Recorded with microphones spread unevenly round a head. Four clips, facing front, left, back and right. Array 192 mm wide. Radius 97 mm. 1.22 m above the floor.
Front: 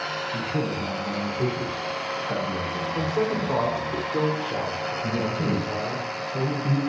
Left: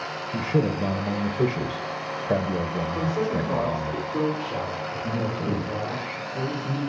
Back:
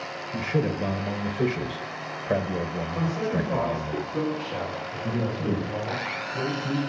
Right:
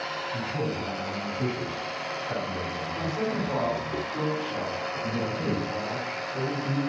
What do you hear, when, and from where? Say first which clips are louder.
0.3 s a man speaking: left 8 dB, back 4 dB; 100° left, 1.0 m
3.0 s a man speaking: left 3 dB, front 2 dB; 30° left, 4 m
5.0 s a man speaking: left 2 dB, even; straight ahead, 5.5 m